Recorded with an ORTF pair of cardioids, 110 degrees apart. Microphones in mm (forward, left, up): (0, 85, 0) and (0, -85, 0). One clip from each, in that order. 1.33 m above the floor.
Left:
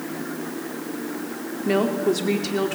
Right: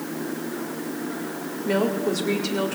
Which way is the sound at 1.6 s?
20° left.